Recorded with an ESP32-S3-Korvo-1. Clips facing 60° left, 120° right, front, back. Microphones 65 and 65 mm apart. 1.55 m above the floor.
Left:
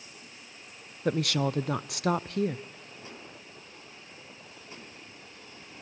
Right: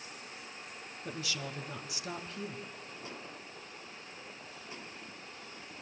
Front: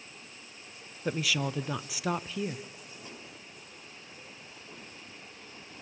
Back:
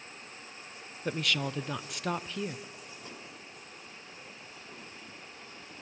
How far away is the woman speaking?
About 0.6 m.